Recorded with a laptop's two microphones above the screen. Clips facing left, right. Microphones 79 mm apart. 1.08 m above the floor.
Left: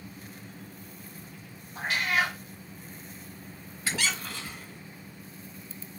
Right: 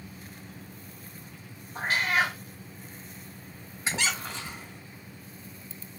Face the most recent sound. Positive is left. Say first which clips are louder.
# right 1 dB
turn(degrees=-25)  # may be behind; listen again after turning